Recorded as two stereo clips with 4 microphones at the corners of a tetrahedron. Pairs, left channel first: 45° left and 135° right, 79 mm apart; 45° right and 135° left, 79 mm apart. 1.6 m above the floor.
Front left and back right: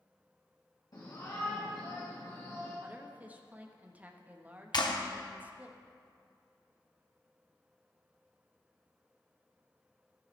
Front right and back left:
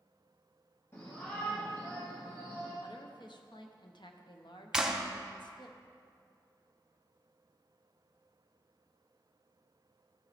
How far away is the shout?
About 2 m.